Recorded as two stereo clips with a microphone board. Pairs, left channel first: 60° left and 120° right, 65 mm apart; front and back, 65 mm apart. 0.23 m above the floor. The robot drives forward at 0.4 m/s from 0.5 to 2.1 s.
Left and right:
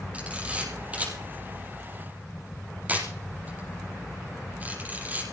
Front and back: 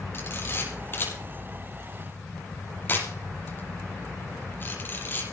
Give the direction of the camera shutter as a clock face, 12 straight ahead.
2 o'clock.